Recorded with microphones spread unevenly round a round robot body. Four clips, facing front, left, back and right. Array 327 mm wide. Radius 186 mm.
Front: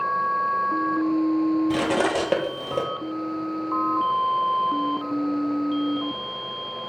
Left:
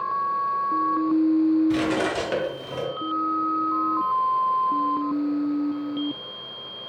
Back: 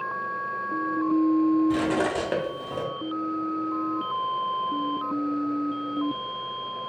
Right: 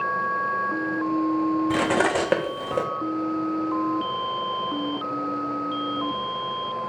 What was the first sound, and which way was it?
Cutlery clinking, 40° right.